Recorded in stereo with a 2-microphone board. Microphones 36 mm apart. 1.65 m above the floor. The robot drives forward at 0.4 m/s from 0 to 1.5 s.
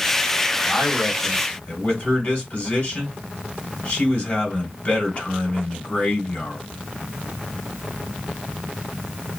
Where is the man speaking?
50° left (ahead or behind), 1.4 m; by 6.6 s 40° left (ahead or behind), 1.7 m.